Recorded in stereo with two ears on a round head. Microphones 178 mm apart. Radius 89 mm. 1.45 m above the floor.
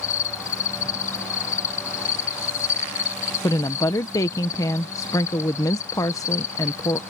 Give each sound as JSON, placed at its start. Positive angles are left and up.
{"t": 0.0, "sound": "an insect", "side_deg": 40}
{"t": 3.4, "sound": "a woman speaking", "side_deg": 15}